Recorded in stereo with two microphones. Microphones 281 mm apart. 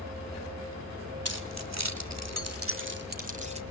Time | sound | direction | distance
1.2 | keys jangling | 60° right (ahead or behind) | 1.8 m